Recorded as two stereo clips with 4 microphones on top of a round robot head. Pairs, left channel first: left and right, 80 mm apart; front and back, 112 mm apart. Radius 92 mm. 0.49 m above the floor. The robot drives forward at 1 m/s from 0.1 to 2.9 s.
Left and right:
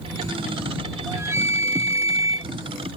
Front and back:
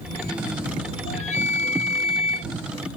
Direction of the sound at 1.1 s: 30° right.